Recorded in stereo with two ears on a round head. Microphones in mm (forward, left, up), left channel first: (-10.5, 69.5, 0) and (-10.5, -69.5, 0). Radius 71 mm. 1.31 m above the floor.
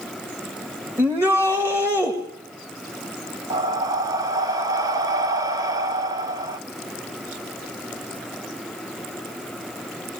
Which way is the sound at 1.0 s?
15° right (ahead or behind).